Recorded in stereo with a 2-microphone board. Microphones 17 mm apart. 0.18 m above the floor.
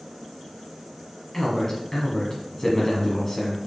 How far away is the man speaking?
About 1.1 m.